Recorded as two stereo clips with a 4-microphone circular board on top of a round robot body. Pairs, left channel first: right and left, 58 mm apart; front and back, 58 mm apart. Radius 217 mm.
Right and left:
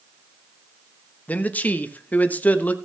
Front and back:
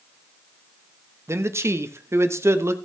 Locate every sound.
1.3 s a man speaking: 150° right, 1.3 m